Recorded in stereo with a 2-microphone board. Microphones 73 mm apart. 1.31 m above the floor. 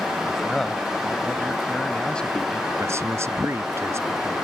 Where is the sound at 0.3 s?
5° left (ahead or behind); by 2.7 s 15° left (ahead or behind).